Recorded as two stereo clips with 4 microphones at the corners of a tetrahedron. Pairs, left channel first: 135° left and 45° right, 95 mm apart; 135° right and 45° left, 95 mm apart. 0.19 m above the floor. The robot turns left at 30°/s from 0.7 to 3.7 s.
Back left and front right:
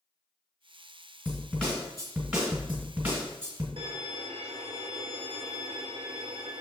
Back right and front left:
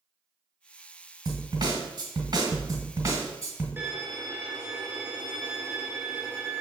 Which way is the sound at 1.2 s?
65° left.